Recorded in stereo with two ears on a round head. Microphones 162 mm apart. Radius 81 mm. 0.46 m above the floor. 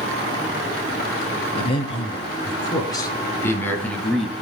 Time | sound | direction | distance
1.5 | a man speaking | 30° left (ahead or behind) | 5.5 m